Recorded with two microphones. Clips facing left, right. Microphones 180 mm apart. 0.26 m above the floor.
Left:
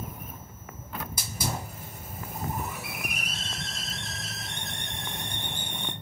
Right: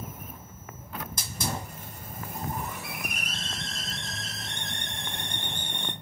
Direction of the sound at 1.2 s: 5° left (ahead or behind).